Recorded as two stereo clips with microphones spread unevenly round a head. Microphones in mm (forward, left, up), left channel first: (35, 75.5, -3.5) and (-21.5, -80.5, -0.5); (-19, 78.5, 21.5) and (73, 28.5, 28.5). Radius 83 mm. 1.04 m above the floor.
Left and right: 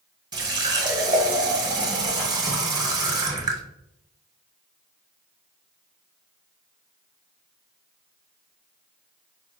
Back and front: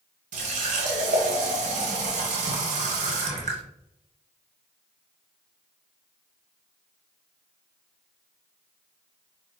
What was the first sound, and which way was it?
A running tap, 45° right.